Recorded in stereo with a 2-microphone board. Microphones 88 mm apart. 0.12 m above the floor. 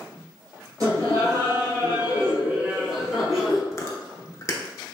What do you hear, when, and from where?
0.8 s laughter: 45° right (ahead or behind), 1.9 m; by 3.6 s 5° left (ahead or behind), 1.3 m
3.7 s chewing: 35° left (ahead or behind), 0.5 m